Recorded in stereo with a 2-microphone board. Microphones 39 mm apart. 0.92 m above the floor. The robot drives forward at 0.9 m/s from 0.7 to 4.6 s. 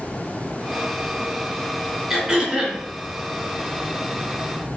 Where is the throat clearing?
5° right (ahead or behind), 4 m.